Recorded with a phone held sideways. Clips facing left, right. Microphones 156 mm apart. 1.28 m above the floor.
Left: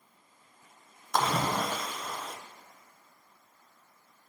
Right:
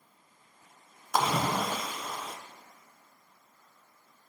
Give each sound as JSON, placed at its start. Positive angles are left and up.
{"t": 1.1, "sound": "a splash", "side_deg": -5, "distance_m": 0.8}